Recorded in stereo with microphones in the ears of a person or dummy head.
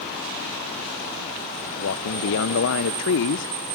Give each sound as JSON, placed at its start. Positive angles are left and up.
{"t": 1.8, "sound": "a man speaking", "side_deg": 65, "distance_m": 1.2}